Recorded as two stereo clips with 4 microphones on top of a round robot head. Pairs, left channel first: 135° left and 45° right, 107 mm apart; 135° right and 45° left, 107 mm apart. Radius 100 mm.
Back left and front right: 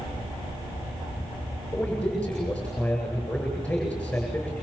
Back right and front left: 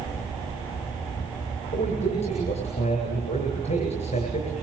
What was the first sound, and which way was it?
A man speaking, 145° right.